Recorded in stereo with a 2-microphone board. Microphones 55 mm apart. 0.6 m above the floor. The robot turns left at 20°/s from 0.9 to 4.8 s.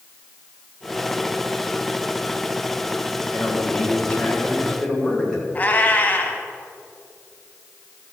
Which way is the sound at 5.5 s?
30° left (ahead or behind).